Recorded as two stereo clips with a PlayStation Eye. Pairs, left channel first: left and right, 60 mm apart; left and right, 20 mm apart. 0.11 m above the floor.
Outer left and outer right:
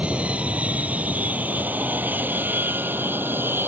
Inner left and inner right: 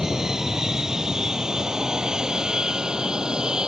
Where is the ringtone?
I don't hear a ringtone.